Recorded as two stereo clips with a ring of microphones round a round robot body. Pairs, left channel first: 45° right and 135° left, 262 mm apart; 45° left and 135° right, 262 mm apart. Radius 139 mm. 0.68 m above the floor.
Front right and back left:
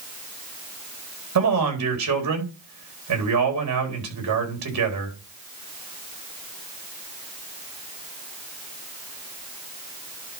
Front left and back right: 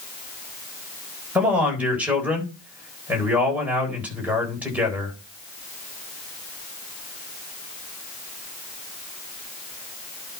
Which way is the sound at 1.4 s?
140° left.